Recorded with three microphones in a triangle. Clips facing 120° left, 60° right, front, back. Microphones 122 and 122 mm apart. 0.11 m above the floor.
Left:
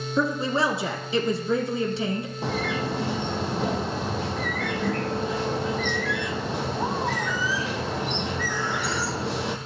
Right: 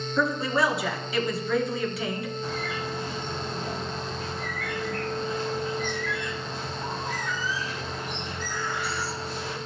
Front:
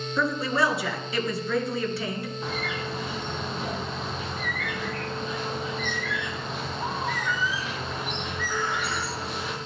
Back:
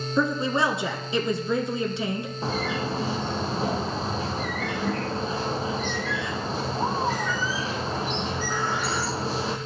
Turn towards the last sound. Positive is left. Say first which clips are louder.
# left 4 dB, back 7 dB
turn(degrees=125)